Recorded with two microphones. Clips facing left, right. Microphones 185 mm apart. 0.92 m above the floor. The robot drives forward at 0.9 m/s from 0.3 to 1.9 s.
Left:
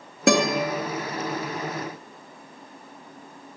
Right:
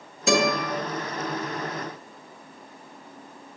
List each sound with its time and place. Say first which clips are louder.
0.3 s a guitar: left 2 dB; 65° left (ahead or behind), 2.0 m